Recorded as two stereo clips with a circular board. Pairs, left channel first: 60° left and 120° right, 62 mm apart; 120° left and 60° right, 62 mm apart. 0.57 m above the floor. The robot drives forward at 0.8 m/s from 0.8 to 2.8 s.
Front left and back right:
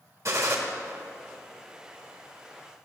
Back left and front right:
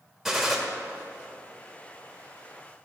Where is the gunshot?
145° right, 1.4 m.